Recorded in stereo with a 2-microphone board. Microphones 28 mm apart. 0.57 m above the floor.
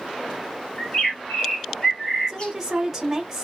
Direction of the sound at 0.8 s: 30° left (ahead or behind).